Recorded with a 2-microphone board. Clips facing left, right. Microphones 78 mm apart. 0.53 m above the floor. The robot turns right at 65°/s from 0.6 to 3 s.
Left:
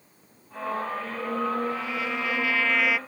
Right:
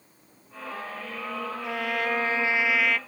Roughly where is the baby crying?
I don't hear a baby crying.